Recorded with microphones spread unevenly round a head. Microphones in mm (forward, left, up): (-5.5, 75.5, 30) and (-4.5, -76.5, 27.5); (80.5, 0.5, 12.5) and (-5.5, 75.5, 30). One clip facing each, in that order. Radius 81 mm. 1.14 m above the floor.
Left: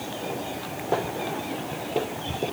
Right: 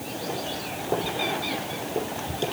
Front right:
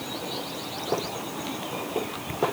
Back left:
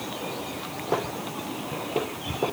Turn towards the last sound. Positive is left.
No sound to turn to.